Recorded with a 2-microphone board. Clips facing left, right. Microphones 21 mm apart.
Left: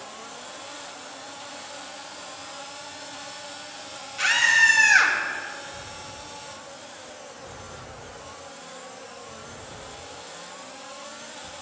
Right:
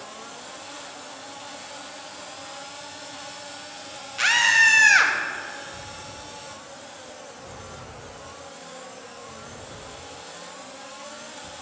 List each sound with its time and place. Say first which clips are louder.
4.2 s a scream: right 1 dB; 25° right (ahead or behind), 1.5 m